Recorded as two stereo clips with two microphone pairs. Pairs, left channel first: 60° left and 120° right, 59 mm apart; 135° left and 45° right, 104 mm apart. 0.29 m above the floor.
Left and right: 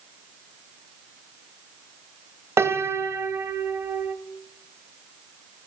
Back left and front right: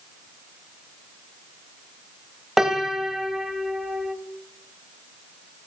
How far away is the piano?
About 0.7 m.